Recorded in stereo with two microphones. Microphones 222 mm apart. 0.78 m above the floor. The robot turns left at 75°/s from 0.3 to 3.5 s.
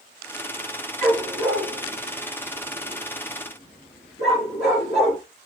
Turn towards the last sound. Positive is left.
turn(degrees=55)  # may be behind; listen again after turning